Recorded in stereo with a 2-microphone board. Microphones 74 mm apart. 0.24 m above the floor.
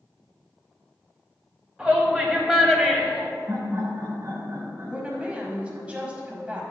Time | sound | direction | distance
1.8 | a shout | 5° right (ahead or behind) | 1.0 m
3.5 | laughter | 45° right (ahead or behind) | 1.5 m
4.8 | a woman speaking | 15° right (ahead or behind) | 1.3 m